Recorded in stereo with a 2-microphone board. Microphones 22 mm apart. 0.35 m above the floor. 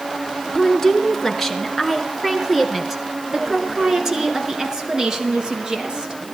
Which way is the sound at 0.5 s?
20° left (ahead or behind).